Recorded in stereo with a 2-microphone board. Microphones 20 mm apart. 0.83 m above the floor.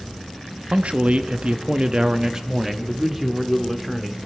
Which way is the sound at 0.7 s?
65° right (ahead or behind).